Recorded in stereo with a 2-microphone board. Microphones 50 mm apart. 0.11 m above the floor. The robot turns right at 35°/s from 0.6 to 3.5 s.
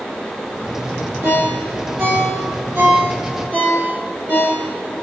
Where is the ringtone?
30° right (ahead or behind), 1.3 m; by 4.9 s 40° right (ahead or behind), 1.3 m.